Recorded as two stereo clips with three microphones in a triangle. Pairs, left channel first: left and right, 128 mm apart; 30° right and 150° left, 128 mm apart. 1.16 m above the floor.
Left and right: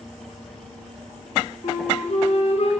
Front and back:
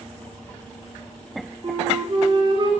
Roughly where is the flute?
Left.